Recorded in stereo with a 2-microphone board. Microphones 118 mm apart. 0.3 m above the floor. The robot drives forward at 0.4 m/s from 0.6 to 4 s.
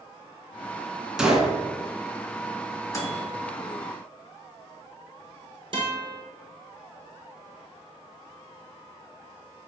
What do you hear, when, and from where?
1.2 s a gunshot: 5° right (ahead or behind), 0.7 m
2.9 s a microwave: 25° left (ahead or behind), 0.8 m
5.7 s a guitar: 45° right (ahead or behind), 1.4 m